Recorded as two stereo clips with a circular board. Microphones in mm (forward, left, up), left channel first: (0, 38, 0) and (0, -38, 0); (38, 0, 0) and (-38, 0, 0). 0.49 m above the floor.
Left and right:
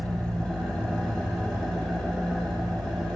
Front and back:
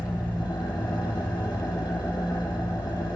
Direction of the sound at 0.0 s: 10° left.